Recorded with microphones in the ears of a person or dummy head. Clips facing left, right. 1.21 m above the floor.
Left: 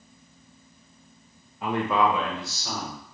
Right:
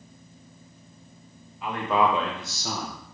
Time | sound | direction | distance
1.6 | a man speaking | 35° left (ahead or behind) | 0.6 m